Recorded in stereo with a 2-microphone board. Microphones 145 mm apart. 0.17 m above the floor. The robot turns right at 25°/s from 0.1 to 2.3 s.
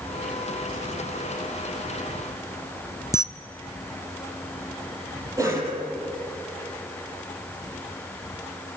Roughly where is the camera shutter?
Left.